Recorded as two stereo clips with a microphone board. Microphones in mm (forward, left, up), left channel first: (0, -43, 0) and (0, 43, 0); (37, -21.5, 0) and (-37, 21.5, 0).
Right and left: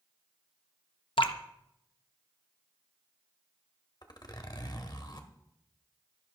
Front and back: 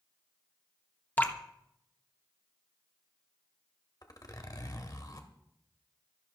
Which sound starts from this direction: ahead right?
A zipper, at 4.0 s.